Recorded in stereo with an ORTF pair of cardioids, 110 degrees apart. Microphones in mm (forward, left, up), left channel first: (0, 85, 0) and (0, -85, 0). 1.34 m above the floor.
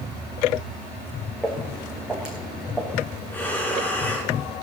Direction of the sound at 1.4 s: 5° right.